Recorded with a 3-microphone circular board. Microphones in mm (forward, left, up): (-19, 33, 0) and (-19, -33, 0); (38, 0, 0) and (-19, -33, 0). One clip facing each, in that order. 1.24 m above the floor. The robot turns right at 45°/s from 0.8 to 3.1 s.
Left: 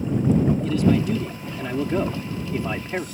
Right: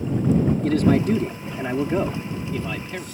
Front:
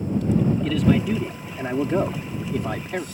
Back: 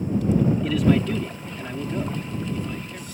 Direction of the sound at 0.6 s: 65° right.